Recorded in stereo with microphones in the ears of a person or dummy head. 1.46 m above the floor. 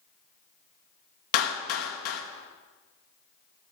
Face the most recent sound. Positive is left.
turn(degrees=60)  # may be behind; listen again after turning